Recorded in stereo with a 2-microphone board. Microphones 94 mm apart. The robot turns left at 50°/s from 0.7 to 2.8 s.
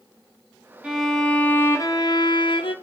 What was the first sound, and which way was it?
A violin, 170° right.